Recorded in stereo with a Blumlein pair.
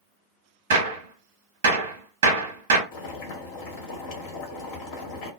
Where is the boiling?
45° left, 0.9 m.